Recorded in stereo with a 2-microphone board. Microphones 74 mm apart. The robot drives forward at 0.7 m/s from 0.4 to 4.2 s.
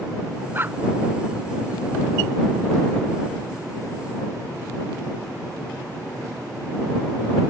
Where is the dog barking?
30° right (ahead or behind).